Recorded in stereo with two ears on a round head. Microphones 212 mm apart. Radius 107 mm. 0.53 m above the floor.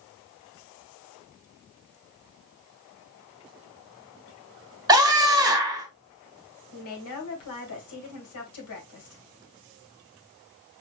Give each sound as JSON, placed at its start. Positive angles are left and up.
{"t": 4.9, "sound": "a scream", "side_deg": -15, "distance_m": 1.7}
{"t": 6.7, "sound": "a woman speaking", "side_deg": 65, "distance_m": 2.5}